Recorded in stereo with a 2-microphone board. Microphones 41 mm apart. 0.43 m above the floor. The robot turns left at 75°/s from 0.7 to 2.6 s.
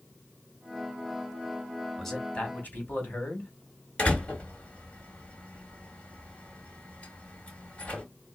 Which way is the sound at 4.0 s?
35° left (ahead or behind).